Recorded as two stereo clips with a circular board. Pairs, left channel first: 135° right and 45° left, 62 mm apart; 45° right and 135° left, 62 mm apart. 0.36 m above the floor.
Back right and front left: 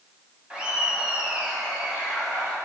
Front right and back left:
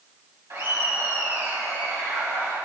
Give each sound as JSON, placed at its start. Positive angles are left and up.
{"t": 0.5, "sound": "laughter", "azimuth_deg": 115, "distance_m": 3.0}